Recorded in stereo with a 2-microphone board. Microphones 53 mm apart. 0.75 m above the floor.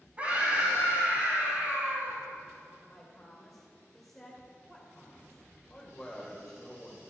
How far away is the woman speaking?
About 2 m.